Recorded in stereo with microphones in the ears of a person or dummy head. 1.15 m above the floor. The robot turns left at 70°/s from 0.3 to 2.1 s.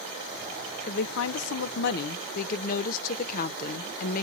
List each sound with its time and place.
0.9 s a woman speaking: 135° left, 0.5 m; by 4.2 s 45° left, 0.5 m